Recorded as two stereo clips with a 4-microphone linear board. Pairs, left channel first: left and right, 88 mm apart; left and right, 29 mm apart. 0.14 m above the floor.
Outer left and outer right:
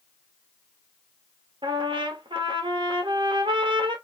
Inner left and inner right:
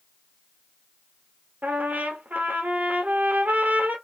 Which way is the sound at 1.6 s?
70° right (ahead or behind).